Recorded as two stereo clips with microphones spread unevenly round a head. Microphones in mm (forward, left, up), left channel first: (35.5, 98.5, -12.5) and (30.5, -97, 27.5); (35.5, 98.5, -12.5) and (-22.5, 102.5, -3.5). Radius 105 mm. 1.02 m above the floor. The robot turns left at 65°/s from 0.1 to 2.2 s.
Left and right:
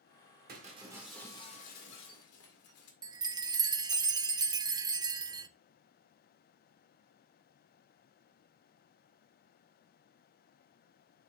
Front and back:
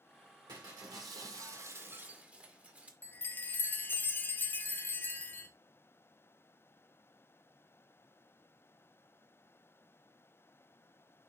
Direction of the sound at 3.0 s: 15° right.